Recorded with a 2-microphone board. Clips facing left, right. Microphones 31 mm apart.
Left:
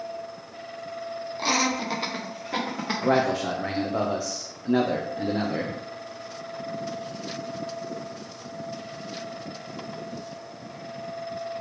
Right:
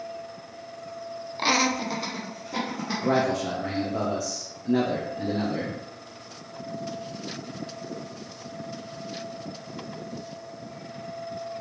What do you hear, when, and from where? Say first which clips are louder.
1.4 s laughter: right 2 dB; 35° right (ahead or behind), 0.7 m; by 3.3 s 70° left (ahead or behind), 1.7 m
3.0 s a man speaking: left 1 dB; 25° left (ahead or behind), 0.6 m